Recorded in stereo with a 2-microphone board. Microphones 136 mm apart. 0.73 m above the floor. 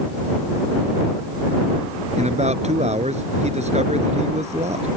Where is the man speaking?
55° right (ahead or behind).